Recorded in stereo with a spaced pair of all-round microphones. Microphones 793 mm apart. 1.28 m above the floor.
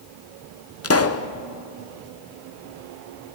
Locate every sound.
0.8 s a pop: 20° left (ahead or behind), 0.6 m